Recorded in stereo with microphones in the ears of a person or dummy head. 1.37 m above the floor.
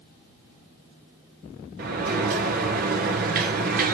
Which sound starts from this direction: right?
A sliding door, at 1.8 s.